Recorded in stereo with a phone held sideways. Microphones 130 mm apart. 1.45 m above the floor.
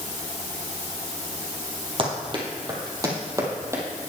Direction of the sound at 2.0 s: 40° right (ahead or behind).